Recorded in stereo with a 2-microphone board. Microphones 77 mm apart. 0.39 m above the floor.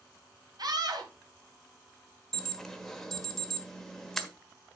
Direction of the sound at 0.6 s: 65° right (ahead or behind).